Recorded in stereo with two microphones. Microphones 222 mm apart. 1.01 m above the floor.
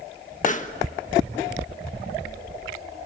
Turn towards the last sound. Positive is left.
turn(degrees=35)  # may be behind; listen again after turning